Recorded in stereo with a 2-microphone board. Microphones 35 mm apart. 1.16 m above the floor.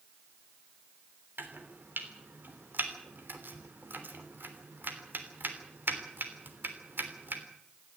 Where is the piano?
I don't hear a piano.